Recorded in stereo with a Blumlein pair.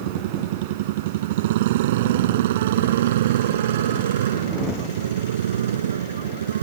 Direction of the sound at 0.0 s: 50° right.